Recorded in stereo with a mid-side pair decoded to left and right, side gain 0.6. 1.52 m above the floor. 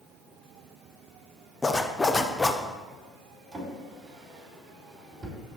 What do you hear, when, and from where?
1.6 s a zipper: 20° left, 0.6 m
3.5 s a drawer: 30° right, 2.5 m